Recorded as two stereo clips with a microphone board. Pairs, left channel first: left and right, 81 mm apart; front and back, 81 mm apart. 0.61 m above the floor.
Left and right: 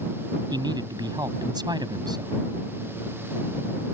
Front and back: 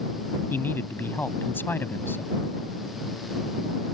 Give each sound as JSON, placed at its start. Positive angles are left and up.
{"t": 0.5, "sound": "a man speaking", "azimuth_deg": -65}